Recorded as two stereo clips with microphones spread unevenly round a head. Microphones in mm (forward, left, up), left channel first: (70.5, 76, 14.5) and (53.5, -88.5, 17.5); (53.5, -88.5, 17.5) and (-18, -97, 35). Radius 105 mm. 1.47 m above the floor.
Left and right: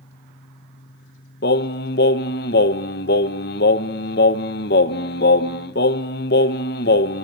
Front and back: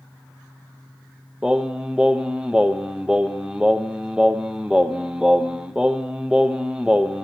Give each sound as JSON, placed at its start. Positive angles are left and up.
{"t": 0.0, "sound": "a fan", "azimuth_deg": 110, "distance_m": 0.8}
{"t": 1.4, "sound": "singing", "azimuth_deg": 110, "distance_m": 0.8}